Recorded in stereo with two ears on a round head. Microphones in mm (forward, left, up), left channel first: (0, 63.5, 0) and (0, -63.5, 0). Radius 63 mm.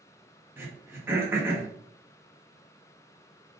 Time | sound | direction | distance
0.6 | throat clearing | 15° right (ahead or behind) | 1.1 m